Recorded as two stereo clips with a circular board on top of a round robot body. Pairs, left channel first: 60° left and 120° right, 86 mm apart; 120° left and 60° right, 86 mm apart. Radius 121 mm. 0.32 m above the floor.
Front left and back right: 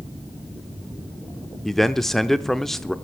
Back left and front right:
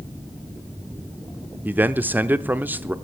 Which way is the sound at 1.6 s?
20° right.